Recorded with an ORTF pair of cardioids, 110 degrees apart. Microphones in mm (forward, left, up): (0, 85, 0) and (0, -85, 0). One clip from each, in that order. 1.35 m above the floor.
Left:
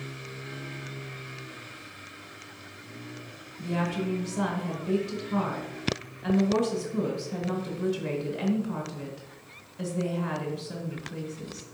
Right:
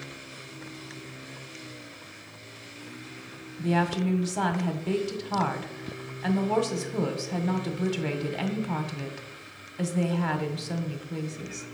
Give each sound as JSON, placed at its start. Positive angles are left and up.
{"t": 3.6, "sound": "a woman speaking", "azimuth_deg": -60, "distance_m": 1.4}